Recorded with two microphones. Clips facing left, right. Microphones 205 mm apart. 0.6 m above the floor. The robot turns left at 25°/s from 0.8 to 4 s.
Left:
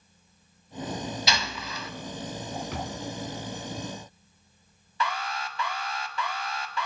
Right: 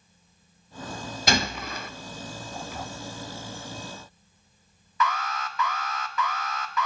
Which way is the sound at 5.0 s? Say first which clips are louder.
Right 3 dB; 30° left (ahead or behind).